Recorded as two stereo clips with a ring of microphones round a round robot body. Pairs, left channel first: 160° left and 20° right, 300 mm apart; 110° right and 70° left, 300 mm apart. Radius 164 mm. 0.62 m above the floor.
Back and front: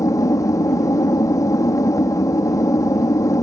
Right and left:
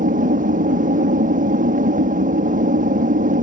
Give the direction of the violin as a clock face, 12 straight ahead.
No violin in this recording.